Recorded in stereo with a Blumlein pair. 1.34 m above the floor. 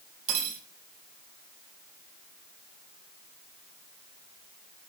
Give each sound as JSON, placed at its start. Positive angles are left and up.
{"t": 0.3, "sound": "cutlery clinking", "azimuth_deg": -40, "distance_m": 1.3}